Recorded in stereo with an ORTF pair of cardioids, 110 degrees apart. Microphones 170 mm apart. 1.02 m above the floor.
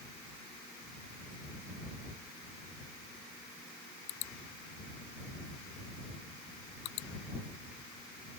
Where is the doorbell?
No doorbell in this recording.